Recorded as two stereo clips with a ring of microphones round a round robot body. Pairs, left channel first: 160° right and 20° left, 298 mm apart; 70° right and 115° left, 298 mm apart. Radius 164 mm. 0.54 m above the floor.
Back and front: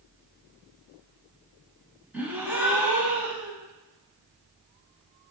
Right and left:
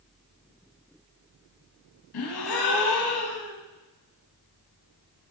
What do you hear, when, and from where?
2.1 s a gasp: 60° right, 0.8 m